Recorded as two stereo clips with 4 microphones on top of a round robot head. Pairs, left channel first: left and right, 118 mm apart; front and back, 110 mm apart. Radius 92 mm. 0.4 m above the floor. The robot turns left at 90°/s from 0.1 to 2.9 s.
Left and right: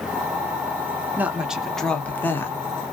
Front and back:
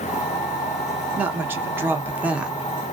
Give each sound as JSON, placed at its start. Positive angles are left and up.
{"t": 1.2, "sound": "a woman speaking", "azimuth_deg": -135, "distance_m": 0.8}